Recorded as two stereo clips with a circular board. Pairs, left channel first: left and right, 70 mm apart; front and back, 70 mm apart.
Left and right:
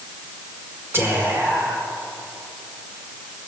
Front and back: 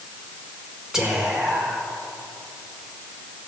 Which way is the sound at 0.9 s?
105° right.